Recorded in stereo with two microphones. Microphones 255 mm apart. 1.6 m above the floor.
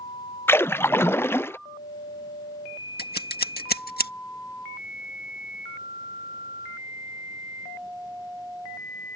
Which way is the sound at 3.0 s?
40° left (ahead or behind).